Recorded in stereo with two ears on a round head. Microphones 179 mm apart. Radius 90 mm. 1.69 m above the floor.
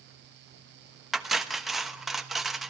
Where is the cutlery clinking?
Centre (ahead or behind), 1.1 m.